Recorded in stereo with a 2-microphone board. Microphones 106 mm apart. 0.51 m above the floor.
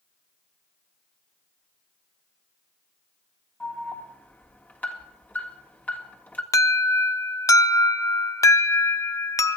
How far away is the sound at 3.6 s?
About 1.7 m.